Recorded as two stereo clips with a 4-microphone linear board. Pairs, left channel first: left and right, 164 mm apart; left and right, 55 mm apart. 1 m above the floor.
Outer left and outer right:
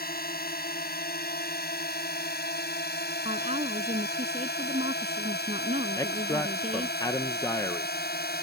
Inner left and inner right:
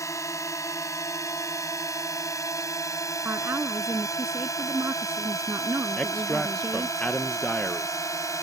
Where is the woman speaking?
40° right (ahead or behind).